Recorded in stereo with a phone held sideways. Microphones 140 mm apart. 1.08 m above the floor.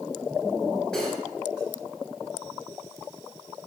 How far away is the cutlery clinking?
About 4.5 m.